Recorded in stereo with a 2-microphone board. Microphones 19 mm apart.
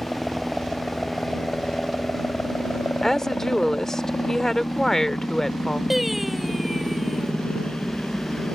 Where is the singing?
10° right (ahead or behind).